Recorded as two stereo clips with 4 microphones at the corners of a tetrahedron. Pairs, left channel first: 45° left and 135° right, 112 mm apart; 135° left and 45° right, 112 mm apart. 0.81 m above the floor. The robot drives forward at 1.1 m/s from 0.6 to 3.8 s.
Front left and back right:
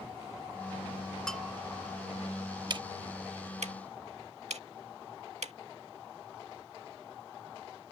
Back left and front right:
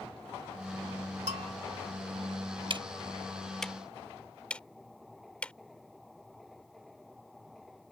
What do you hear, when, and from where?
1.3 s a bell: 40° right; by 1.5 s 45° right
2.7 s ticking: 85° right; by 5.5 s 145° right